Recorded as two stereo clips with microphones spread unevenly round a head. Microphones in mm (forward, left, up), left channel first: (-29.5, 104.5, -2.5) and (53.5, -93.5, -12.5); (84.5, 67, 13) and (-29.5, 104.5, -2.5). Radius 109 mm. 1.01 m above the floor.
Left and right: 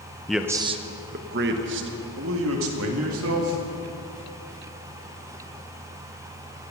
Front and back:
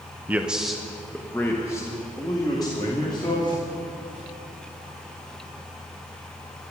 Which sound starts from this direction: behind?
A man speaking, at 0.3 s.